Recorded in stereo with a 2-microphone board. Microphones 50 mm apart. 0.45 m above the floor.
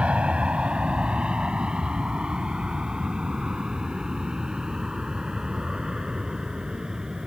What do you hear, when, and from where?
0.0 s an aircraft: 20° right (ahead or behind); by 7.3 s 10° right (ahead or behind)